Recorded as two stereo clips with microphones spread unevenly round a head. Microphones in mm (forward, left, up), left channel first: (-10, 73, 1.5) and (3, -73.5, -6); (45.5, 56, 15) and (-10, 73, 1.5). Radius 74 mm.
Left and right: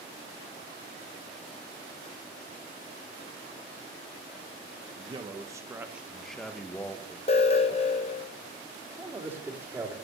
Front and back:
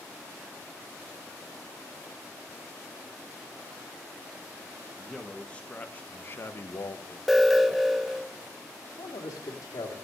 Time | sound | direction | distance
5.0 | a man speaking | 120° right | 1.1 m
7.3 | an alarm | 100° left | 1.0 m
9.0 | a man speaking | 15° right | 2.5 m